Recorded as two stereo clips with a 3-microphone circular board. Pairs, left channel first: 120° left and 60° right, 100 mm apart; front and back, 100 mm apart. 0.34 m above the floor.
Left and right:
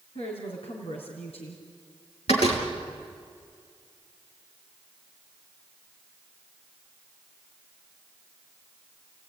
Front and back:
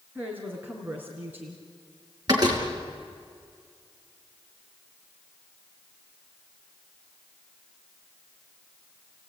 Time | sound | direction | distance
0.1 | a woman speaking | 105° left | 3.5 m
2.3 | a door slam | 130° left | 4.5 m